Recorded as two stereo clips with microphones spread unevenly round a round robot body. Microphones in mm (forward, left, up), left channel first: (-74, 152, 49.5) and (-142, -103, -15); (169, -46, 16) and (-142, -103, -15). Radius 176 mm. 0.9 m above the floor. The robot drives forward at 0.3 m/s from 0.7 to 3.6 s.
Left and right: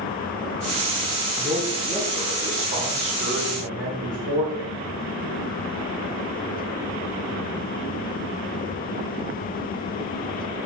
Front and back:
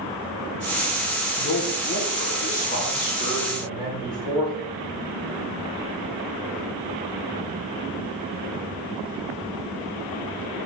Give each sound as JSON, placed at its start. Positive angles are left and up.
{"t": 1.4, "sound": "a man speaking", "azimuth_deg": -45, "distance_m": 1.8}